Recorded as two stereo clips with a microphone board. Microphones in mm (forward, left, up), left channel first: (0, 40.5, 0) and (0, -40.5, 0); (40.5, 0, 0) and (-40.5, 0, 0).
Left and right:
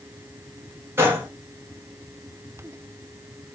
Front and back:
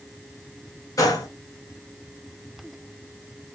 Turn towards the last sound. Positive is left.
turn(degrees=-35)